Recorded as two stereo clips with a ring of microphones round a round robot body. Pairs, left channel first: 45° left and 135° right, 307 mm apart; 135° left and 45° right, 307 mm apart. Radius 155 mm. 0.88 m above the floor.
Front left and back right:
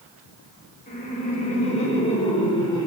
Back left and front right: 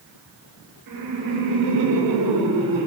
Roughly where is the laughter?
Ahead.